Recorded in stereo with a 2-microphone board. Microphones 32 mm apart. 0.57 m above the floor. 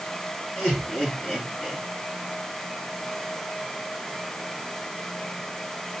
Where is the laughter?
50° left (ahead or behind), 5 m; by 1.8 s 35° left (ahead or behind), 4 m.